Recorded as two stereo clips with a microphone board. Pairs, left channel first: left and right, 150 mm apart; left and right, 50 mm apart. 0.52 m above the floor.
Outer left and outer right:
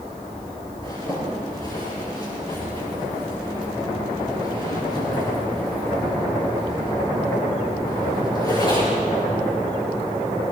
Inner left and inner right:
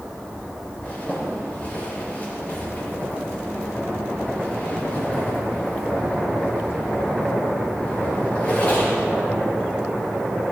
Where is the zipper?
30° left (ahead or behind), 7 m.